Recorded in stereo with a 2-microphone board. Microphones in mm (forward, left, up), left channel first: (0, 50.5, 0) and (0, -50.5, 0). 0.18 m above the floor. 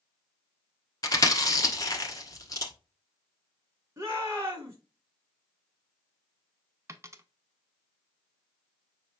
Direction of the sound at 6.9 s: 30° right (ahead or behind).